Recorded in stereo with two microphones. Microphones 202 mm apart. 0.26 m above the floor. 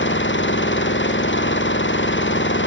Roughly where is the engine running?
Left.